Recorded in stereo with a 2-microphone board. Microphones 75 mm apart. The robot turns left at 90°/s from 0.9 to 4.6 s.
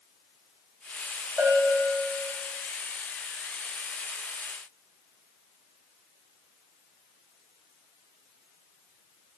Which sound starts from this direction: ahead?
A bell, at 1.4 s.